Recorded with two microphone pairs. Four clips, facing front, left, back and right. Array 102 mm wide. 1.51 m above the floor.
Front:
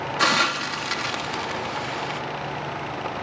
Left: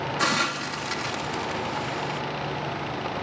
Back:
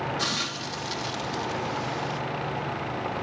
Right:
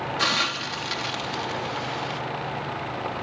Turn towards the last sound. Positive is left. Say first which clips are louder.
# left 3 dB, front 9 dB
turn(degrees=-5)